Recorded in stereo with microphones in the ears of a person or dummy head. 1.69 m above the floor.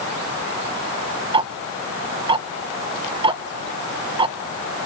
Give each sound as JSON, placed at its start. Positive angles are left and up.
{"t": 1.3, "sound": "ticking", "side_deg": -25, "distance_m": 0.6}